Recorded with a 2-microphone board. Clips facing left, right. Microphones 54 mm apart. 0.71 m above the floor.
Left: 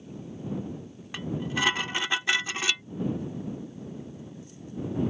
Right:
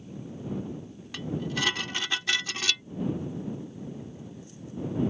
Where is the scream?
I don't hear a scream.